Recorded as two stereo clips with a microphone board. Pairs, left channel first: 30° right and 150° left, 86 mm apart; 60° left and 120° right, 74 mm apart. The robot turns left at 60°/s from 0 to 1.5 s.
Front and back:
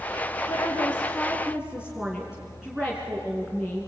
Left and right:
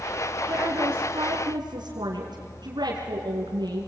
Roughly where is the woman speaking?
Right.